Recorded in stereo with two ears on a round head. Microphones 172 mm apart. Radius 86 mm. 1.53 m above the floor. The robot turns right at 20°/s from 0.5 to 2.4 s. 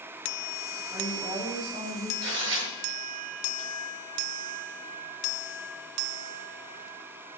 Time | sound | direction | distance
0.9 | a woman speaking | 10° right (ahead or behind) | 5.5 m
2.2 | tearing paper | 65° right (ahead or behind) | 6.5 m